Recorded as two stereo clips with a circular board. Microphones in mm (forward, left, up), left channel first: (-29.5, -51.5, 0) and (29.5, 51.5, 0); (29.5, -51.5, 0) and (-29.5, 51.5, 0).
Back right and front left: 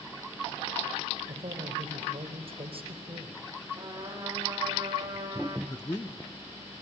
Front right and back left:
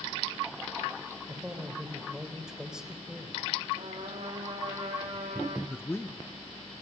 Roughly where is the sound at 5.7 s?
Right.